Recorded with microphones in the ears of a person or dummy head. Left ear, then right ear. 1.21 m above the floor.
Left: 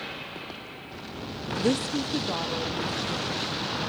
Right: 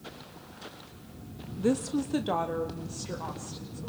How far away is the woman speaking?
About 0.5 m.